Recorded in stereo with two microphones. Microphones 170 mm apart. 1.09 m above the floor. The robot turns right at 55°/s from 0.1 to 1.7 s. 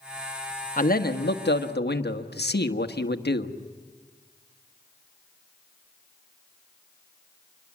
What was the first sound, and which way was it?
A man speaking, 50° left.